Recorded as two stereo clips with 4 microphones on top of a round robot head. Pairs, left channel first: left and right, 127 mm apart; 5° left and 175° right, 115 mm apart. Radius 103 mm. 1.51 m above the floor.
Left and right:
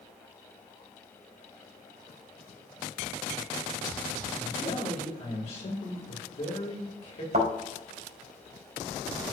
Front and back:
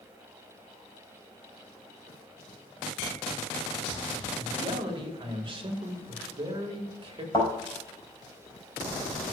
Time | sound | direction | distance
4.3 | a man speaking | 140° left | 2 m
7.3 | a thud | 65° right | 4 m